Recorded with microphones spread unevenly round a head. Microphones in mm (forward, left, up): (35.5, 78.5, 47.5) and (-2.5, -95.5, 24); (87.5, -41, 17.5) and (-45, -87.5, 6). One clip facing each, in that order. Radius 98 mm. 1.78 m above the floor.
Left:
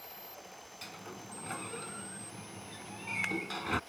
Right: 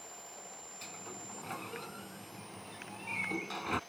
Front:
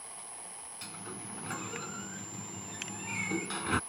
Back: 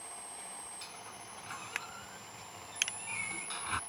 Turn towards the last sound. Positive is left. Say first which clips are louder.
# left 1 dB, front 5 dB
turn(degrees=-10)